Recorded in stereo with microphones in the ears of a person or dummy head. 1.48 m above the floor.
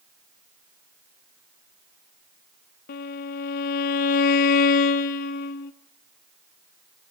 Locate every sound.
2.9 s a violin: 45° left (ahead or behind), 1.1 m